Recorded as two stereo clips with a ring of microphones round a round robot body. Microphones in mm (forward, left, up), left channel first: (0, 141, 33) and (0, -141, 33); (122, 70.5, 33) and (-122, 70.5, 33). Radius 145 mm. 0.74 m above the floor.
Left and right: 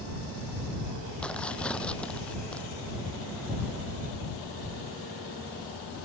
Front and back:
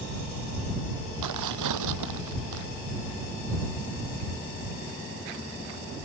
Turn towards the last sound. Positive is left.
turn(degrees=175)